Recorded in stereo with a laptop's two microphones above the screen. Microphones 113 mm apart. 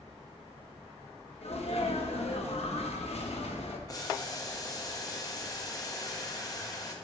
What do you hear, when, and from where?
1.4 s a sneeze: 65° left (ahead or behind), 1.3 m
3.9 s boiling: 35° left (ahead or behind), 0.8 m